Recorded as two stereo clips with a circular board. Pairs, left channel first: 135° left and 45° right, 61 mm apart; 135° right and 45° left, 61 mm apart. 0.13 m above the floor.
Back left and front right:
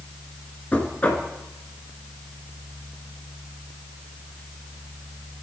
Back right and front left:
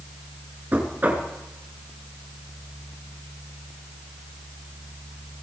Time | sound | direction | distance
0.7 | knocking | 85° left | 1.8 m